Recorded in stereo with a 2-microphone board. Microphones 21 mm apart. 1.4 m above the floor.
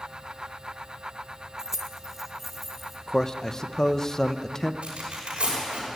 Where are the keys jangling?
25° right (ahead or behind), 0.8 m; by 3.0 s 5° right (ahead or behind), 2.5 m.